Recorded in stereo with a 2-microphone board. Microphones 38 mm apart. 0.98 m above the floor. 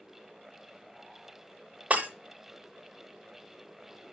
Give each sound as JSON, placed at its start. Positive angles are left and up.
{"t": 1.9, "sound": "breaking glass", "side_deg": -35, "distance_m": 0.8}